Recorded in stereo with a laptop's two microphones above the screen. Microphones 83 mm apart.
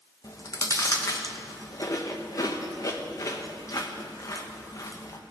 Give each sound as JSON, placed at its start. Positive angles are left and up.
{"t": 0.2, "sound": "chewing", "side_deg": 40, "distance_m": 0.8}